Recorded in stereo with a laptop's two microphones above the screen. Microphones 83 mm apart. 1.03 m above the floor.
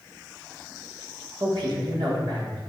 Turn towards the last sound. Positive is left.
turn(degrees=-60)  # may be behind; listen again after turning